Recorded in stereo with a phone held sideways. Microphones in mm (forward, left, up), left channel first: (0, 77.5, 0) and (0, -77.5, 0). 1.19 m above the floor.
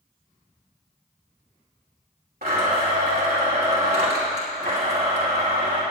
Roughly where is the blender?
Right.